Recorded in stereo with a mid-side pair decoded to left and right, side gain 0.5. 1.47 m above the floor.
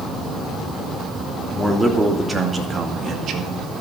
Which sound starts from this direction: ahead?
A man speaking, at 1.5 s.